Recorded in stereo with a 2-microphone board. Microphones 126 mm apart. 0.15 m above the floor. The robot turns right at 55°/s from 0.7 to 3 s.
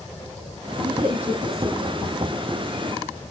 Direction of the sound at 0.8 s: 30° right (ahead or behind).